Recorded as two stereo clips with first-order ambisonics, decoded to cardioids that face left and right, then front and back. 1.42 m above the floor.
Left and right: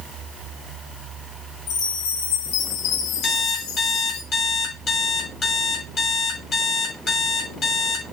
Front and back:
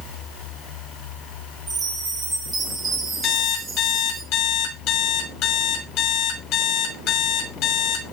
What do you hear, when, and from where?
1.7 s a chime: 105° left, 5 m
3.2 s an alarm clock: 25° left, 3.5 m